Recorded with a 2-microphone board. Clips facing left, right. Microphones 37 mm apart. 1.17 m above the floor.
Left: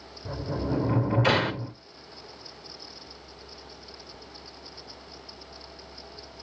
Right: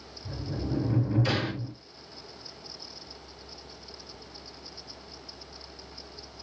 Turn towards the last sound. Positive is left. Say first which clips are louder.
# left 4 dB
turn(degrees=65)  # may be behind; listen again after turning